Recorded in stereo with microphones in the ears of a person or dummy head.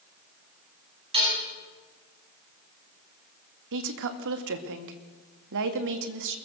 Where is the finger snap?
No finger snap in this recording.